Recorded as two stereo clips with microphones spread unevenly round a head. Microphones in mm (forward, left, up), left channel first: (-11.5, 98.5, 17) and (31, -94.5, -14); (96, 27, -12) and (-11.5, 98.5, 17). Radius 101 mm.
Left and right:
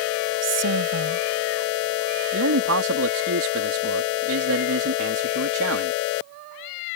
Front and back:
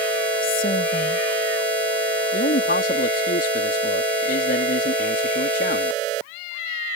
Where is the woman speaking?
80° right.